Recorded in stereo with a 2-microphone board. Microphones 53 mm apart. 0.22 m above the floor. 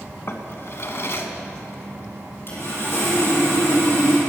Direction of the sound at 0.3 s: 50° left (ahead or behind).